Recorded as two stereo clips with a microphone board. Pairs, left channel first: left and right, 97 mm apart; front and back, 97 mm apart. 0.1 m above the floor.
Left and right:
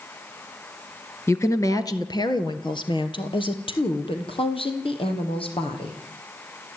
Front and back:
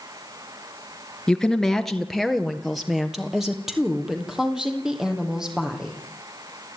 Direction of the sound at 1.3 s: 75° left.